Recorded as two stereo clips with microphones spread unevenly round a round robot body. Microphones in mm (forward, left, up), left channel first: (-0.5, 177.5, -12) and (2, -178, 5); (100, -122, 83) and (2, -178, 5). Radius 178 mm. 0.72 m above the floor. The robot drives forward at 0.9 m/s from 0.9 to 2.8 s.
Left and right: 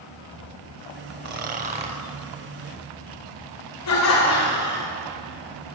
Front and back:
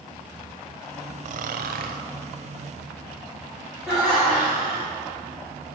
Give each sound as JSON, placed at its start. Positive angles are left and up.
{"t": 1.2, "sound": "snoring", "azimuth_deg": -110, "distance_m": 0.5}
{"t": 3.9, "sound": "laughter", "azimuth_deg": 135, "distance_m": 3.0}